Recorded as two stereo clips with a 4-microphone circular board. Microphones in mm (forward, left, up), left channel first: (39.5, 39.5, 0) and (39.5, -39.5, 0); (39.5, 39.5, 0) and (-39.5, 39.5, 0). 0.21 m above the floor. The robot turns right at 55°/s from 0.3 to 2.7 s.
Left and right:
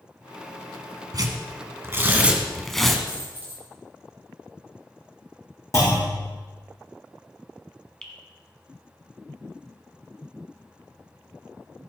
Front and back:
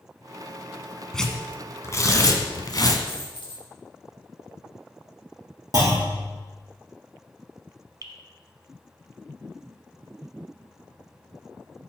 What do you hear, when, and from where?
1.1 s tearing paper: 80° right, 1.2 m; by 3.0 s 5° left, 1.2 m
3.1 s a dropped coin: 20° right, 3.5 m
5.7 s a clunk: 140° left, 4.5 m
8.0 s dripping: 165° left, 1.1 m